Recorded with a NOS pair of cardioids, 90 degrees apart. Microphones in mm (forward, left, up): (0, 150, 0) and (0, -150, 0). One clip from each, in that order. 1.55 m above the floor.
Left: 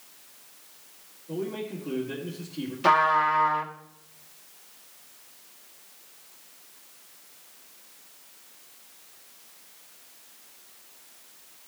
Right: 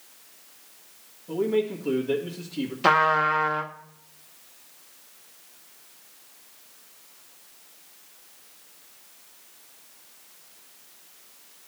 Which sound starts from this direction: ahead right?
A man speaking, at 1.3 s.